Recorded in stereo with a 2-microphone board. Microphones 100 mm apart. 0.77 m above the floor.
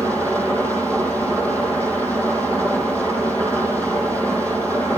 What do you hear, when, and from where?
0.0 s an engine running: 20° left (ahead or behind), 7 m